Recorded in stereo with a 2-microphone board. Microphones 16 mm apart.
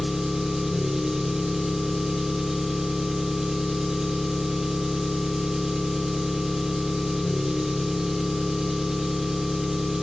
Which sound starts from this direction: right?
An engine running, at 0.0 s.